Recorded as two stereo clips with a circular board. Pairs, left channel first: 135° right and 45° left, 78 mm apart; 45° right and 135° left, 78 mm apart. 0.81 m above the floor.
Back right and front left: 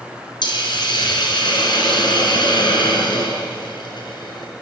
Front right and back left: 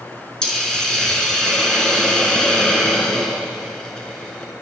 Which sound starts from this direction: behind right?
A hiss, at 0.4 s.